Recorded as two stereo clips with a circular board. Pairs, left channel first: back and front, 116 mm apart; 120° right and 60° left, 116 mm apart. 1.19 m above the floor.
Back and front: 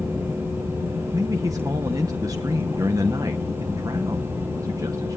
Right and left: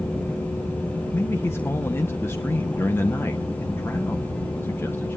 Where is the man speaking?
55° right, 1.1 m.